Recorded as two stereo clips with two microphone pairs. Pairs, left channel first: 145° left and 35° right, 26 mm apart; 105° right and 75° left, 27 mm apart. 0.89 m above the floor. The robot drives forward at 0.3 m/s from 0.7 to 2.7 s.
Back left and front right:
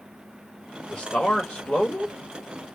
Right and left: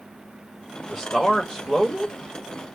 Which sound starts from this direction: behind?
A man speaking, at 0.9 s.